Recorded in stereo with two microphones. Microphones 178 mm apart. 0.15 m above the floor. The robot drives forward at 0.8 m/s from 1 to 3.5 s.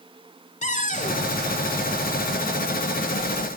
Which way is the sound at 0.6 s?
45° left (ahead or behind).